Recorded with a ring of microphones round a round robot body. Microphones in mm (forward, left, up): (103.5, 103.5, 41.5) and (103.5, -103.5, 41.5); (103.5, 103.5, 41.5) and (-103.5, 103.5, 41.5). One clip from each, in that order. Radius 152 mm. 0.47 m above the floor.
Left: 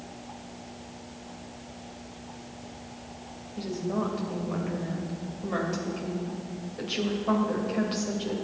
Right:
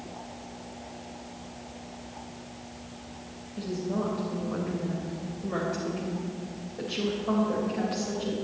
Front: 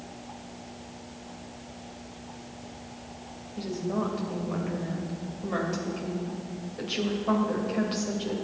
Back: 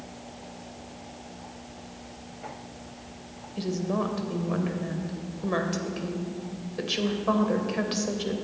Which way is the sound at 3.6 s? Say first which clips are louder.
Left 1 dB, back 2 dB; 155° left.